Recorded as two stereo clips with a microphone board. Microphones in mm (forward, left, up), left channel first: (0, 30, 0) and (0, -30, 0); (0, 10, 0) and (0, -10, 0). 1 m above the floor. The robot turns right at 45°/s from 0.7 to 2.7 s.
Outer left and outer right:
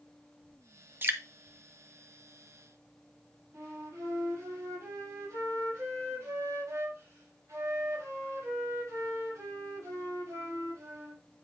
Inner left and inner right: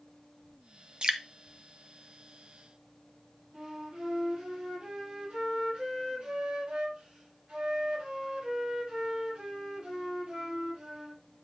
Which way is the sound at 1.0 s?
40° right (ahead or behind).